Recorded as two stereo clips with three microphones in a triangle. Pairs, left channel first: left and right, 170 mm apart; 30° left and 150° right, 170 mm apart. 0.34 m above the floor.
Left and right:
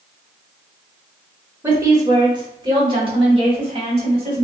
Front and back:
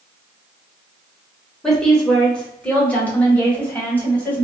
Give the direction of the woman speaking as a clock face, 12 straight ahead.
2 o'clock.